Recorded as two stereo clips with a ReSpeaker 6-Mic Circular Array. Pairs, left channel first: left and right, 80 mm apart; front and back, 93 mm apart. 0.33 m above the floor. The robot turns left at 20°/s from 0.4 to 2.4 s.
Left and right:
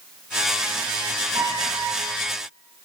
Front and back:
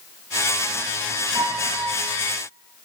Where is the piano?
120° right, 6.5 m; by 2.1 s 135° right, 6.5 m.